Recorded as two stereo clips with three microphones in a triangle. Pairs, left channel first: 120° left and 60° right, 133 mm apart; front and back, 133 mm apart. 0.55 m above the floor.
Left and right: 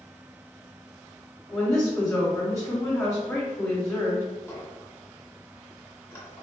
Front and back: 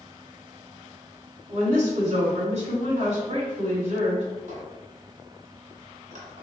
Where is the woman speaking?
175° right, 1.6 m.